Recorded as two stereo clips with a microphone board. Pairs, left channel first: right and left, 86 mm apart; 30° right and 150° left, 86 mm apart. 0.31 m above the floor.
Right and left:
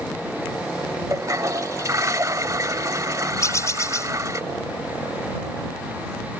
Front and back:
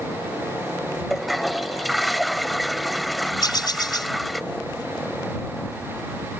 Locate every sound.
1.1 s a toilet flushing: 60° left
3.4 s a bird: 45° right